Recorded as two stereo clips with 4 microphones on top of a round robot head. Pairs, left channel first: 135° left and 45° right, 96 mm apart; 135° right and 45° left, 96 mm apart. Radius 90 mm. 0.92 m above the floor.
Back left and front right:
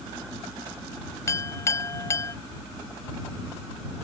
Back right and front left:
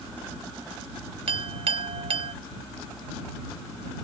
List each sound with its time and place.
1.3 s a clink: 75° left